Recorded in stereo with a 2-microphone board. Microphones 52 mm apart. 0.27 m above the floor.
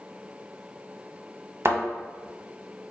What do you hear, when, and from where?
1.6 s a thud: 55° right (ahead or behind), 0.7 m